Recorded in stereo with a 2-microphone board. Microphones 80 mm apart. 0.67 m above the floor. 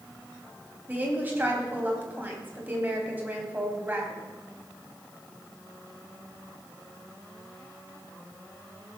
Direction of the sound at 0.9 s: 25° right (ahead or behind).